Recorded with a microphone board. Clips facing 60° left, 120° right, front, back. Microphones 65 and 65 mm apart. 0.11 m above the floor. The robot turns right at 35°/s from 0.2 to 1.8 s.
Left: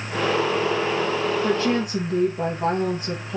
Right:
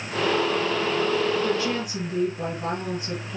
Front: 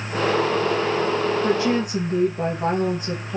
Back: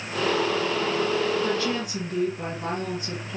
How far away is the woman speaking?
About 2.5 m.